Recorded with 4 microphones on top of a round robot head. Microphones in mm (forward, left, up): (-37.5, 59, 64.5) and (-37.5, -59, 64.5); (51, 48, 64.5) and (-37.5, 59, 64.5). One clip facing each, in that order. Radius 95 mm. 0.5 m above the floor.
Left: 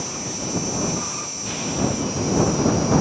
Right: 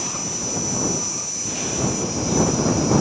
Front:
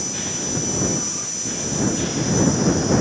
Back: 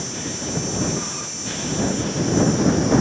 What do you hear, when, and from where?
0.0 s an insect: 45° right